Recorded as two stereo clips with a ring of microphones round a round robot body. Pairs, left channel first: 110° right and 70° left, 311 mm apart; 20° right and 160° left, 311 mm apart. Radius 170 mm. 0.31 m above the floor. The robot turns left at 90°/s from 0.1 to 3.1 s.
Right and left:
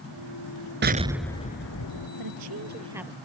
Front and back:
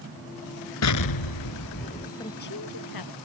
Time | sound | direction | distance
0.8 | an explosion | 15° left | ?
2.2 | a woman speaking | 55° left | ?